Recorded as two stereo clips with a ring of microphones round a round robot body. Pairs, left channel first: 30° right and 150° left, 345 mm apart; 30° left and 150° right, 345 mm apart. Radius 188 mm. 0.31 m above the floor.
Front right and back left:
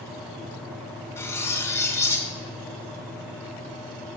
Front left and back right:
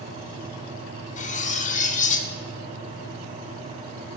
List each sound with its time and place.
1.2 s cutlery clinking: 40° left, 0.6 m